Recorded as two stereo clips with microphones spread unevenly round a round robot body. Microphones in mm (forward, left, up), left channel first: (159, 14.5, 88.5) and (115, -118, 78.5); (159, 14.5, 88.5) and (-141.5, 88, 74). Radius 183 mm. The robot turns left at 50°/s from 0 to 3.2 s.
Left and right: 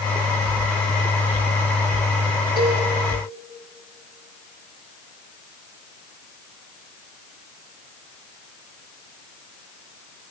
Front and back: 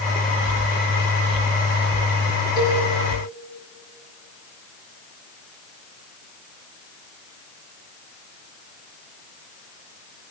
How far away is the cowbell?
About 4 m.